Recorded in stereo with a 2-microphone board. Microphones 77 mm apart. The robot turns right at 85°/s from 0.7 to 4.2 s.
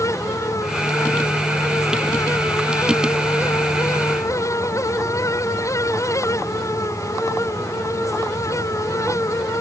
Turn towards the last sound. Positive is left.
No sound to turn to.